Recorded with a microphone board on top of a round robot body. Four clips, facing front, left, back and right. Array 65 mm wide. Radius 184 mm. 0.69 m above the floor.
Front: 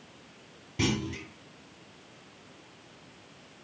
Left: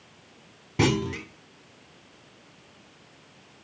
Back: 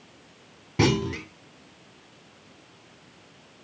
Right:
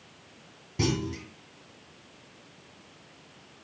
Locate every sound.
0.8 s a clunk: 135° left, 1.1 m